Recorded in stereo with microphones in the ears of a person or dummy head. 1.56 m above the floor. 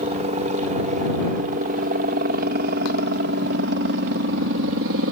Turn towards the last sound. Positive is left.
turn(degrees=-65)  # may be behind; listen again after turning